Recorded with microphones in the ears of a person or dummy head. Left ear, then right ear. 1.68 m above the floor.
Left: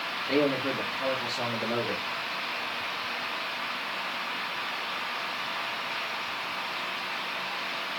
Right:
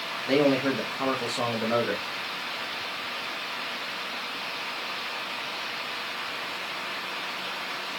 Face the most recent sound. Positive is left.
turn(degrees=-15)  # may be behind; listen again after turning